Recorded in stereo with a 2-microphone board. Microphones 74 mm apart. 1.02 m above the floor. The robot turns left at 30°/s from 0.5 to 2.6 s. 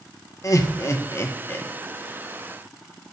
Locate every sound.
0.4 s laughter: 45° left (ahead or behind), 0.8 m; by 1.7 s 25° left (ahead or behind), 0.8 m